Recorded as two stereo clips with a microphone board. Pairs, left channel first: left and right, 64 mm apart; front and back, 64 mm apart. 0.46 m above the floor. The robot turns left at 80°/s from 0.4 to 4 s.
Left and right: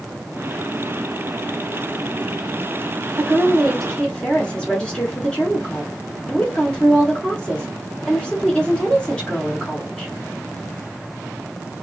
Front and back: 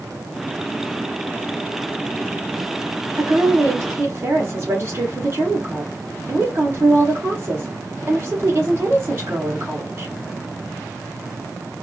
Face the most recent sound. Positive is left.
turn(degrees=155)